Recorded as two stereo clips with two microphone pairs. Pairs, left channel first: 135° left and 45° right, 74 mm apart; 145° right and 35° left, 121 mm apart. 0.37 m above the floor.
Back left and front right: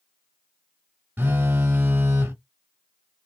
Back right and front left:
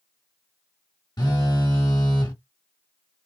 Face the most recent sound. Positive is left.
turn(degrees=-100)